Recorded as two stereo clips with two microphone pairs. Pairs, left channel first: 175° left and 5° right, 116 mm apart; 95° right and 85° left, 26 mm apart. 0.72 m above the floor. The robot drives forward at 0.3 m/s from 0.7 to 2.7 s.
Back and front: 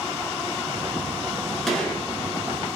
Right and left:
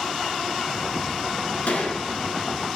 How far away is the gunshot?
About 1.3 m.